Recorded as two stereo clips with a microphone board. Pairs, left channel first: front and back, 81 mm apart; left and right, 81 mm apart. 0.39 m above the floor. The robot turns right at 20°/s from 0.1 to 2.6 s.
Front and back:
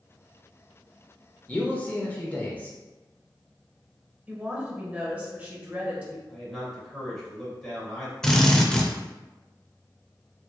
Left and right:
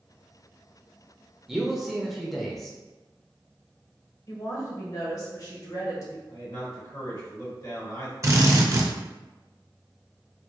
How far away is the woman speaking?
About 1.2 m.